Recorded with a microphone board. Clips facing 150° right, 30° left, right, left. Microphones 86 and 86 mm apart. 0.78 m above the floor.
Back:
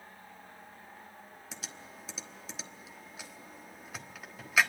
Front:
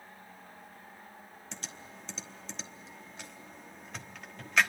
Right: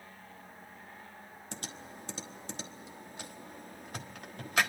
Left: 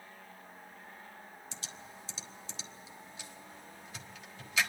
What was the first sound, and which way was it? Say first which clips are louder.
Typing on a keyboard: front 1 dB, right 8 dB; 65° right.